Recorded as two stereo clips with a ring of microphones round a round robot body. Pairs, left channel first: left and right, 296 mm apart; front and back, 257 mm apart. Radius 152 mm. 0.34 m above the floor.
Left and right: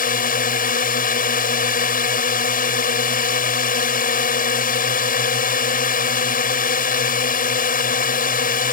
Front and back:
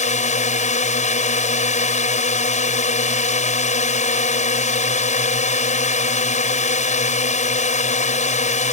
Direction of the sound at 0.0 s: 45° left.